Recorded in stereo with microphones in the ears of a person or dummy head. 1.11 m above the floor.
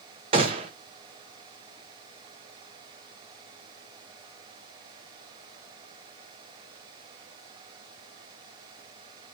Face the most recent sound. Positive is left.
turn(degrees=-25)  # may be behind; listen again after turning